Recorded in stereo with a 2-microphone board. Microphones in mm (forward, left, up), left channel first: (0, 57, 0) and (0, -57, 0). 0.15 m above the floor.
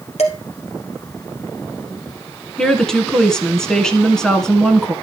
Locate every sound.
0.2 s dishes clattering: 70° left (ahead or behind), 2.5 m
2.6 s a woman speaking: 5° left (ahead or behind), 1.6 m